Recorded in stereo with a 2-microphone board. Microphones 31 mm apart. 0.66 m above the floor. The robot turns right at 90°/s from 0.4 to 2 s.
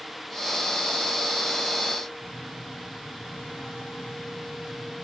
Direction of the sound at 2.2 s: 65° left (ahead or behind).